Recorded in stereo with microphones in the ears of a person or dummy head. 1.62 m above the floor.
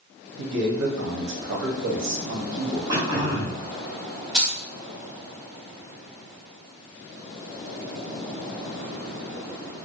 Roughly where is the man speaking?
Right.